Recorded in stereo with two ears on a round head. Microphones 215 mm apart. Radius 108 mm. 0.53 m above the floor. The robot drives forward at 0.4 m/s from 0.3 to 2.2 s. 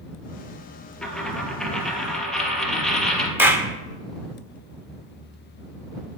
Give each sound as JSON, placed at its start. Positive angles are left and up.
{"t": 1.0, "sound": "a dropped coin", "side_deg": 5, "distance_m": 1.8}
{"t": 3.4, "sound": "a clap", "side_deg": -10, "distance_m": 1.2}